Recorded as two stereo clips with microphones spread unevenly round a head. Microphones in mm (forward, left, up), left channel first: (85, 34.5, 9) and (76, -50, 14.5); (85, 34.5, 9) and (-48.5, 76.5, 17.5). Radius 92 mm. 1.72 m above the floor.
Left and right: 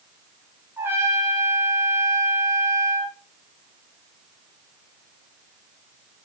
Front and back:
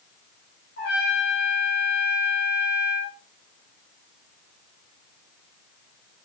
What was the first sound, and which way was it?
A trumpet, 35° right.